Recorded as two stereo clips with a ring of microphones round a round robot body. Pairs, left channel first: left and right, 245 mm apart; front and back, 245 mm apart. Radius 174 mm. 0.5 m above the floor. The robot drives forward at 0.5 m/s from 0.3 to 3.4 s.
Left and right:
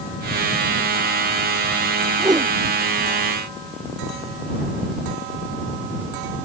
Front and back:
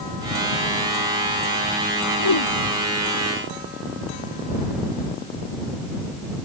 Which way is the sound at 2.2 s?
15° right.